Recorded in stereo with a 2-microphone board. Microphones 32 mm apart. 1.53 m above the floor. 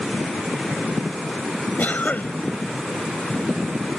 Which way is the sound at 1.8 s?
55° left (ahead or behind).